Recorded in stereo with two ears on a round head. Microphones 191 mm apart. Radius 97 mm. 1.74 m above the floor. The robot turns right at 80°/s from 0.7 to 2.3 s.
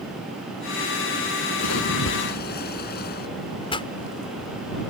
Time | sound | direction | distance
1.6 | a splash | 75° left | ?
3.7 | a pop | 25° left (ahead or behind) | ?